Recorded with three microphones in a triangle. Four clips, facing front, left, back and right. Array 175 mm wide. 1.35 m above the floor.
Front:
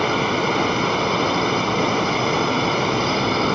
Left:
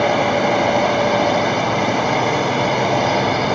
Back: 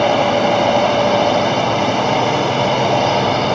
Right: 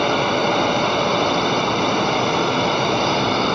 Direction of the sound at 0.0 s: 165° left.